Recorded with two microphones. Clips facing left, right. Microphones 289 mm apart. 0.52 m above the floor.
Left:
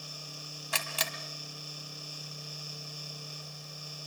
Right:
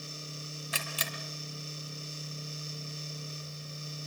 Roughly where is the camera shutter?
Left.